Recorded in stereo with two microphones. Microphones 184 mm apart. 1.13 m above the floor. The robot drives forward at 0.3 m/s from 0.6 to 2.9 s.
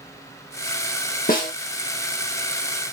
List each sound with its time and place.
1.3 s a snare drum: 50° left (ahead or behind), 1.6 m